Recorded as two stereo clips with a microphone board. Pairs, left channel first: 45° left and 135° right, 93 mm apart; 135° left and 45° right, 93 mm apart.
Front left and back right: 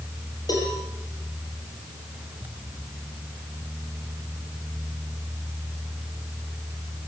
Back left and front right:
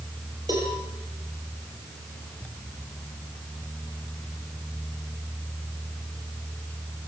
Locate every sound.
0.5 s a cowbell: straight ahead, 8 m